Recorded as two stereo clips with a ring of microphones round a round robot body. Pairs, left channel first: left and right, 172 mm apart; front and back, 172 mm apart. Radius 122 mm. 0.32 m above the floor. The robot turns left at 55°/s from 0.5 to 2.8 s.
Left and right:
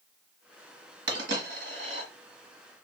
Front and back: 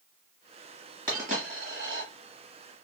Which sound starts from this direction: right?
A dropped coin, at 1.1 s.